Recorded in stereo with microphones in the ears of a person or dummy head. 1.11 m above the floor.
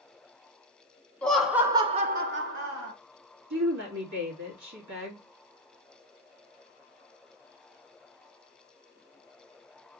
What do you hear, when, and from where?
1.2 s laughter: 5° left (ahead or behind), 0.8 m; by 2.9 s 60° right (ahead or behind), 1.0 m
3.5 s a woman speaking: 65° right (ahead or behind), 1.7 m